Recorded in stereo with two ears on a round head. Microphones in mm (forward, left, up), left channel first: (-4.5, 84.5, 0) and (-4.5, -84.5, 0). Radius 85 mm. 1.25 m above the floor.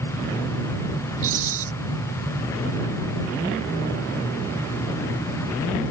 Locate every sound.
1.2 s a rattle: 40° right (ahead or behind)